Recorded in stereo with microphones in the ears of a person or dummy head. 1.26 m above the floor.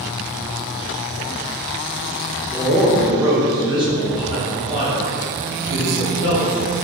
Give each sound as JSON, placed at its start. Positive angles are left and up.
{"t": 2.5, "sound": "a man speaking", "side_deg": 5, "distance_m": 0.6}